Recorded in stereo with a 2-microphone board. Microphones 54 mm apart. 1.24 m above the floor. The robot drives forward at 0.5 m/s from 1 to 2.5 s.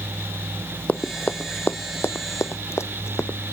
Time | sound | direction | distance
0.9 | running footsteps | 25° left (ahead or behind) | ?